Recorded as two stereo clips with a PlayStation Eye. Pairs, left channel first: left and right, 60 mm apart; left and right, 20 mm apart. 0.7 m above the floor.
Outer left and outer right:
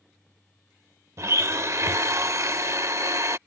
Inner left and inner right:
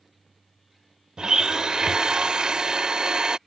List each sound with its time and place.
1.2 s a blender: 55° right (ahead or behind)